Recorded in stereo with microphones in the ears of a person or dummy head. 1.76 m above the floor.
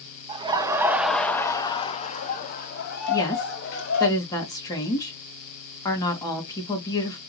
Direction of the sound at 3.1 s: 20° left (ahead or behind).